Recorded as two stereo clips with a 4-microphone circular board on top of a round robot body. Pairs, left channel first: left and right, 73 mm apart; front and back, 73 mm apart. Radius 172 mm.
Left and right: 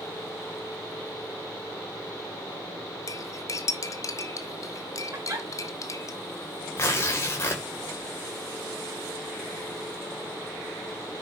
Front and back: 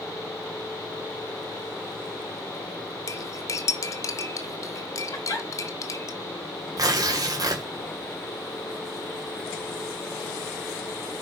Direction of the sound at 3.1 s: 45° left.